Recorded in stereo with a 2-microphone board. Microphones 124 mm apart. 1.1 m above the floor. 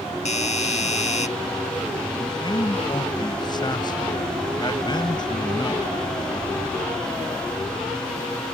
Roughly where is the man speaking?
Left.